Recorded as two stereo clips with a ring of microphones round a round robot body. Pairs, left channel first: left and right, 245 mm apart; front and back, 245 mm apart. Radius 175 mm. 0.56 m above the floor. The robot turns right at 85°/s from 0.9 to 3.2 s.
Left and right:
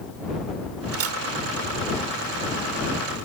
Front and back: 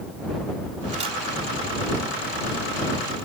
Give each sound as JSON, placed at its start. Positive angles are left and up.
{"t": 0.9, "sound": "a camera shutter", "azimuth_deg": -120}